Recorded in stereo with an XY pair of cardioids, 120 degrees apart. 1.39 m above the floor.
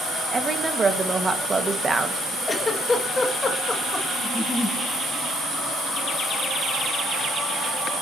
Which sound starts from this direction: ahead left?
A giggle, at 2.5 s.